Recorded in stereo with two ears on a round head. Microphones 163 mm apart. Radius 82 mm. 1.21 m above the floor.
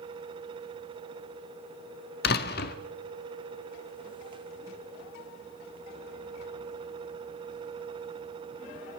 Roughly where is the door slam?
Left.